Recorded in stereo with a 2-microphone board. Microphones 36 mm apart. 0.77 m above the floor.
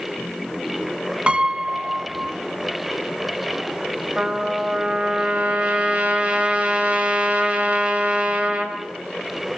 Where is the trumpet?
30° right (ahead or behind), 4 m.